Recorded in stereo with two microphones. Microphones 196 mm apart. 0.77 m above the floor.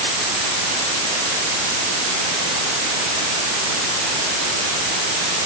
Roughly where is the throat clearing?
No throat clearing in this recording.